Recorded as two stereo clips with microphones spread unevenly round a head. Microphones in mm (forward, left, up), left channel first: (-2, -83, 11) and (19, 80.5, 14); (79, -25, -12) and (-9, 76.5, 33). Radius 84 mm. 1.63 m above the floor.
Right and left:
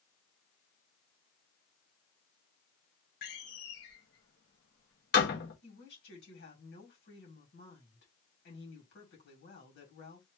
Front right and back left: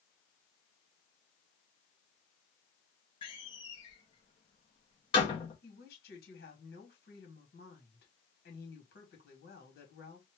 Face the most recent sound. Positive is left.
turn(degrees=-75)